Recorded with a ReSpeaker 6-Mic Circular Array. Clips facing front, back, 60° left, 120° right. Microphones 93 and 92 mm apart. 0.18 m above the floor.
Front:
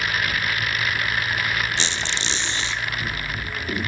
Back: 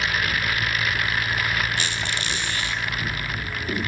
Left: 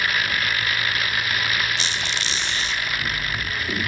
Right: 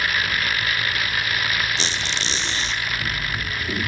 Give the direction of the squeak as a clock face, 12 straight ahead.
2 o'clock.